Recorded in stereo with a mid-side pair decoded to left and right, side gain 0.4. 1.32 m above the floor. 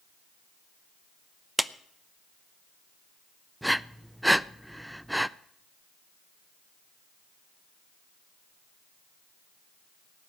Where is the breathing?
5° right, 0.6 m.